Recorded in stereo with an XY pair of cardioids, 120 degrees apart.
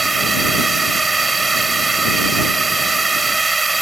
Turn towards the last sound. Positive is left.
turn(degrees=-20)